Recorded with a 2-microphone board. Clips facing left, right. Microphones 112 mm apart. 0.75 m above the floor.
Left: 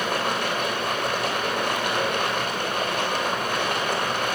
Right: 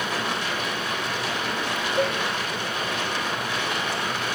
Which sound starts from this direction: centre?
A cowbell, at 2.0 s.